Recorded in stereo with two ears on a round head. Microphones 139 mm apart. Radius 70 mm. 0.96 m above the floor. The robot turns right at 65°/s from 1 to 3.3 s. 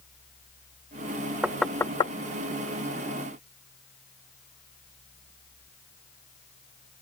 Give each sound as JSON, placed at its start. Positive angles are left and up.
{"t": 1.4, "sound": "knocking", "side_deg": -10}